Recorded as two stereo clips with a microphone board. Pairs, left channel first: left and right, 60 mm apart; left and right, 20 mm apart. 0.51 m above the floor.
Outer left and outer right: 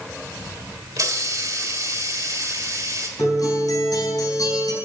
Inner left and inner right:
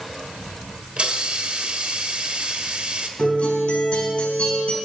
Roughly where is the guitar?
Left.